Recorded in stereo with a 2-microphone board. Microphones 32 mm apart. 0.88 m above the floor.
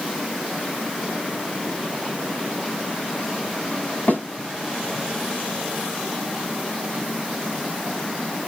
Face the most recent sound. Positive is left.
turn(degrees=60)  # may be behind; listen again after turning